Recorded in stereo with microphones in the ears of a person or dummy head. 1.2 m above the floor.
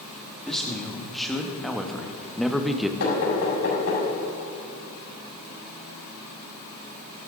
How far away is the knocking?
About 5.5 m.